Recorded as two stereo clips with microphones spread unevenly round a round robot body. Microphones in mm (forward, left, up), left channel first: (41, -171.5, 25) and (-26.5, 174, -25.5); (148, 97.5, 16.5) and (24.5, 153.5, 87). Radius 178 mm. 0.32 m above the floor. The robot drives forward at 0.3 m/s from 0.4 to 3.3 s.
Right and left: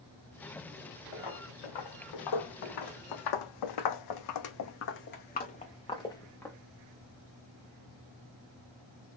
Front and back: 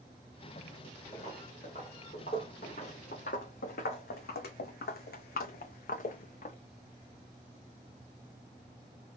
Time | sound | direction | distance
1.1 | footsteps | 100° right | 1.7 m